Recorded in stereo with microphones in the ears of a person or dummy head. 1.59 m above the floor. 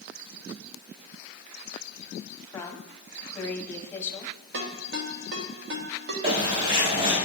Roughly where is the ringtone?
Right.